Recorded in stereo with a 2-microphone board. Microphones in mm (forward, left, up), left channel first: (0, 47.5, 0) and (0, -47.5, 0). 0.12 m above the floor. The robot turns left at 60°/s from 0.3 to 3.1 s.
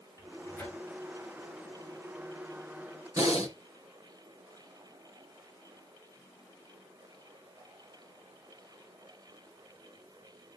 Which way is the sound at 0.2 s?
40° left (ahead or behind).